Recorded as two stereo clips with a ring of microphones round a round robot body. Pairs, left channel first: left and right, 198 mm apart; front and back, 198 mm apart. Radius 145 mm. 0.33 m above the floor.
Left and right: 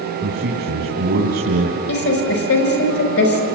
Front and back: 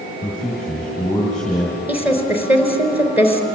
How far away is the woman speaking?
About 5 m.